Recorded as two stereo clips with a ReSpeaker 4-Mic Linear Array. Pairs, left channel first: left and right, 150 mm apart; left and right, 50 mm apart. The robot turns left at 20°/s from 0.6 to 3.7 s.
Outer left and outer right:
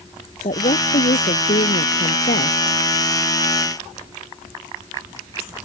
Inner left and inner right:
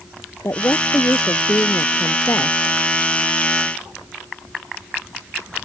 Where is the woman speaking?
115° left; by 2.6 s 75° left.